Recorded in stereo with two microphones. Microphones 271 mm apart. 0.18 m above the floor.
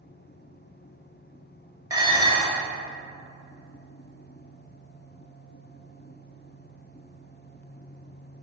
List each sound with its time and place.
1.9 s dishes clattering: 15° right (ahead or behind), 2.0 m